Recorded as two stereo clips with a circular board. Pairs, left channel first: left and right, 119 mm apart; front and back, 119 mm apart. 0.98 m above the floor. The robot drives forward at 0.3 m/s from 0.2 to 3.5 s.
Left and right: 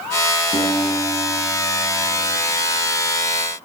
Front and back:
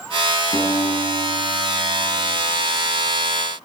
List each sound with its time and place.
0.5 s a guitar: 60° left, 5.5 m; by 2.4 s 65° left, 5.5 m